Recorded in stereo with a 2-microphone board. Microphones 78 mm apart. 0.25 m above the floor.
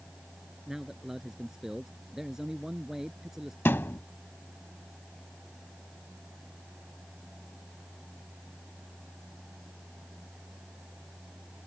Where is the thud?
25° left (ahead or behind).